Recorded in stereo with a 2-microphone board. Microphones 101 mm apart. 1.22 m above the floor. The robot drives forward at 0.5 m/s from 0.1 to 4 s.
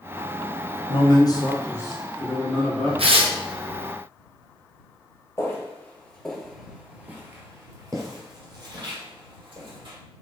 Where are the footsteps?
25° left (ahead or behind), 1.3 m; by 10.0 s 55° right (ahead or behind), 2.5 m.